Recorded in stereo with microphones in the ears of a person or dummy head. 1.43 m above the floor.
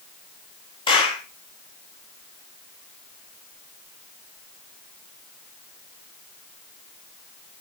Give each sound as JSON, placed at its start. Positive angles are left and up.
{"t": 0.9, "sound": "a clap", "side_deg": 25, "distance_m": 3.5}